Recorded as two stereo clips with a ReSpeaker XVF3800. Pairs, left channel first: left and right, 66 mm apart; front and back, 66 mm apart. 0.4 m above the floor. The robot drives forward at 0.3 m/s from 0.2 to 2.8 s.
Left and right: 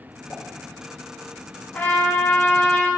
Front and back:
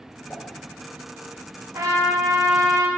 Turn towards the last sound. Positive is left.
turn(degrees=160)